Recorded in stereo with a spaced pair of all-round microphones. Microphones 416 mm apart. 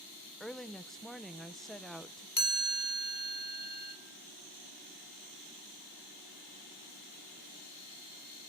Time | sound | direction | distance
0.4 | a woman speaking | centre (ahead or behind) | 0.9 m
2.4 | a chime | 50° left (ahead or behind) | 2.5 m